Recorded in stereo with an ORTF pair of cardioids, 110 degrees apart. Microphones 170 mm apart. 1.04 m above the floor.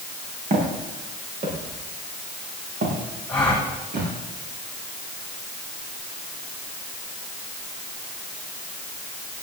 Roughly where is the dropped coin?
No dropped coin in this recording.